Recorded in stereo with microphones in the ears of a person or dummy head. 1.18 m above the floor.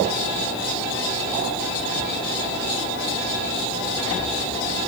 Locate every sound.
Only background noise.